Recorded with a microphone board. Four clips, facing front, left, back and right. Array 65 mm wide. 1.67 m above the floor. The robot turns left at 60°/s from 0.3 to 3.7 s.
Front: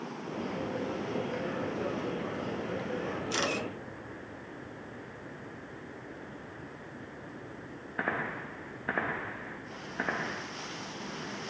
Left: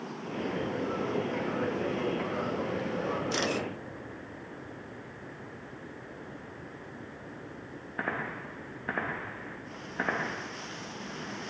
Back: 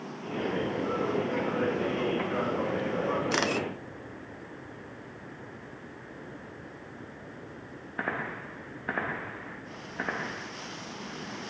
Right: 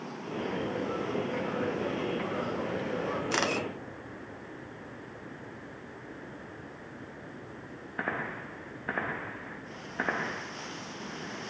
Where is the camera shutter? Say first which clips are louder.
Right 1 dB, back 4 dB; 140° right, 0.7 m; by 3.7 s 165° right, 0.7 m.